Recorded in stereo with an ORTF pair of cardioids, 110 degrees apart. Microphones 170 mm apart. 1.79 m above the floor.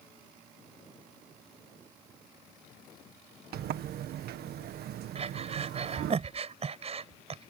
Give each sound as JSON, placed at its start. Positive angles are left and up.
{"t": 3.5, "sound": "a sliding door", "azimuth_deg": -65}
{"t": 5.2, "sound": "breathing", "azimuth_deg": -40}